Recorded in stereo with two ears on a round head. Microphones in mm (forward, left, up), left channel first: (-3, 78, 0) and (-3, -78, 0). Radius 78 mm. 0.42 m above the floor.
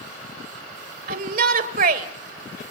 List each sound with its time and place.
1.1 s a shout: 50° right (ahead or behind), 1.7 m